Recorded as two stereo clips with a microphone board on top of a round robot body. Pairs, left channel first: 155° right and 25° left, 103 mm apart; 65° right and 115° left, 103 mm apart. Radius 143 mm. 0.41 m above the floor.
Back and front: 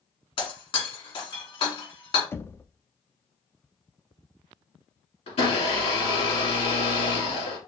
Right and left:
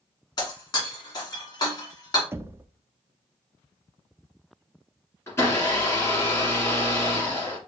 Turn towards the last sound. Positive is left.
turn(degrees=-135)